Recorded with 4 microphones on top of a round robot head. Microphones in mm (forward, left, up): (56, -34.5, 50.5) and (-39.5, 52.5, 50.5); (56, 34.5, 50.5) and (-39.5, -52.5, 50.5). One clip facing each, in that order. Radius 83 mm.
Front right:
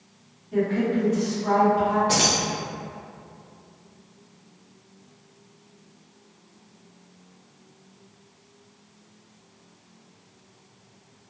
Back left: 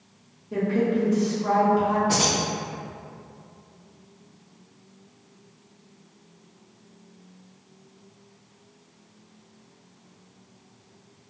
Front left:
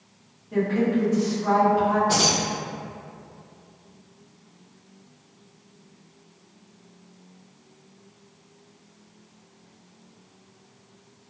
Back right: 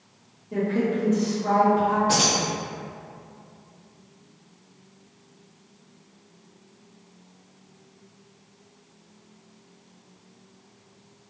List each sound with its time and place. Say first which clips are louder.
0.5 s a woman speaking: even, front left 2 dB; 155° left, 1.0 m
2.1 s keys jangling: even, even; 85° right, 0.8 m